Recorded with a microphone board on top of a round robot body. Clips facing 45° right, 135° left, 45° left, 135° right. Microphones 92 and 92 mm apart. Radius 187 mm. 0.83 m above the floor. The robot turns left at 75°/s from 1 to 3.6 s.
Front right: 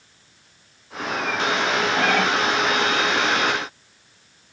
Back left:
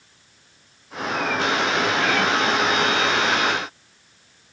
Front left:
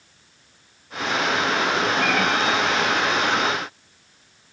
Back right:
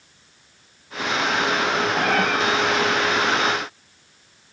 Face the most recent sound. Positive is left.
turn(degrees=160)